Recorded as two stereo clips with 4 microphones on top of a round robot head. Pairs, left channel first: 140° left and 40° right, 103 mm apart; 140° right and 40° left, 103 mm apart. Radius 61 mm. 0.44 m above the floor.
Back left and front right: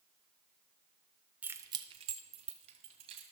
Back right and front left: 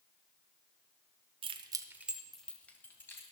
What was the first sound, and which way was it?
Keys jangling, 30° left.